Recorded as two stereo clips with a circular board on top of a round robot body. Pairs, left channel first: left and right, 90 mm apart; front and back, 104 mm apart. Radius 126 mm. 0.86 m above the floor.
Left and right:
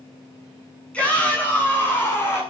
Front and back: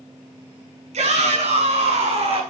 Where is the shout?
170° left, 8.5 m; by 2.4 s 155° left, 9 m.